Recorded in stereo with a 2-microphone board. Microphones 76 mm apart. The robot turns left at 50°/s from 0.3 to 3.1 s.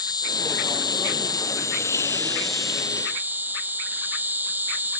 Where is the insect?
115° left; by 5.0 s 25° right.